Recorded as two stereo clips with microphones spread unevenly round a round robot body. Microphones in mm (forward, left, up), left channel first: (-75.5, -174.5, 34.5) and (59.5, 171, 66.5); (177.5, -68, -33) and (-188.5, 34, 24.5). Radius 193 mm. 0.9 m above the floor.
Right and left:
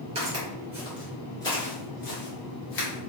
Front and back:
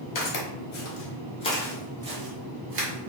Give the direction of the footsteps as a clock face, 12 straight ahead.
12 o'clock.